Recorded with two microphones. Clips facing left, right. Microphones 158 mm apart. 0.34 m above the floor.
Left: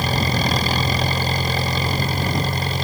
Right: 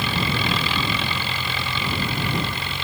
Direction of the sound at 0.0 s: 40° left (ahead or behind).